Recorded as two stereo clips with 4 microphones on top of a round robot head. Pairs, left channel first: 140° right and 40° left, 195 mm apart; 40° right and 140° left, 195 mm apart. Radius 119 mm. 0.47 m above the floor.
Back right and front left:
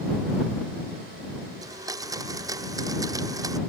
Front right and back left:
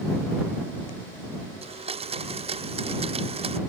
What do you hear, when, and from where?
1.6 s a blender: 105° left